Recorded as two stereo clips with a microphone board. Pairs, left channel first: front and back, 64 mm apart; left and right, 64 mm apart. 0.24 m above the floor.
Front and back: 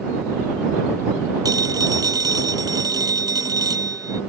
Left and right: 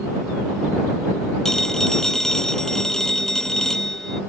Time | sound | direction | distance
1.4 | a phone ringing | 175° left | ?